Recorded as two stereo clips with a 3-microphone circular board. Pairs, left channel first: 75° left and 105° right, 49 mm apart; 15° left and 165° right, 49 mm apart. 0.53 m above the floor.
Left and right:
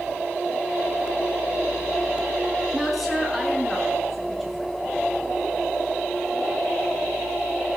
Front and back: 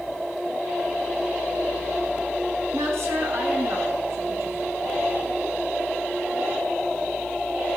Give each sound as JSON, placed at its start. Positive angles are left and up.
{"t": 2.7, "sound": "a woman speaking", "azimuth_deg": 170, "distance_m": 5.5}